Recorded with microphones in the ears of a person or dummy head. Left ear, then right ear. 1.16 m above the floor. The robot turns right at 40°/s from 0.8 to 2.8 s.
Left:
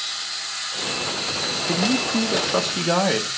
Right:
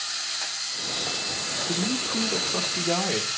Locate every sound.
1.7 s a man speaking: 75° left, 1.1 m; by 3.3 s 125° left, 1.1 m